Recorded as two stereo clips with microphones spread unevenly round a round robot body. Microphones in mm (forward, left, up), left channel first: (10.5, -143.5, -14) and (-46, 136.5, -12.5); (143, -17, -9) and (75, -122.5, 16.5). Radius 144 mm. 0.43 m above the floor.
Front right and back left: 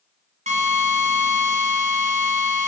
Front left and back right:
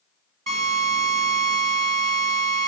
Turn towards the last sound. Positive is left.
turn(degrees=170)